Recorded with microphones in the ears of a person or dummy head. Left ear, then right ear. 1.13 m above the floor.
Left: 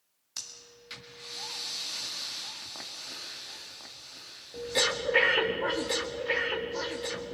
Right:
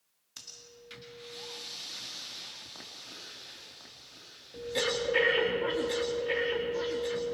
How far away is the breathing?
About 1.9 m.